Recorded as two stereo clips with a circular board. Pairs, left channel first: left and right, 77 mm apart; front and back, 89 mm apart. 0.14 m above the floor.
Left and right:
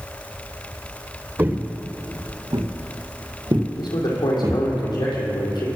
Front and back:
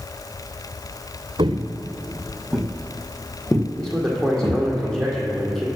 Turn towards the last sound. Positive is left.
turn(degrees=85)